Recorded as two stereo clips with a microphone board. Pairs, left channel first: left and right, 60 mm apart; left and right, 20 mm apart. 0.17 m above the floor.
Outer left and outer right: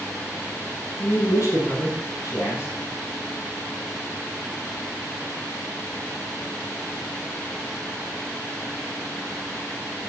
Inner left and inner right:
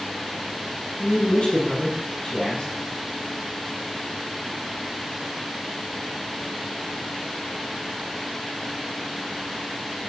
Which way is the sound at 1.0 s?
50° left (ahead or behind).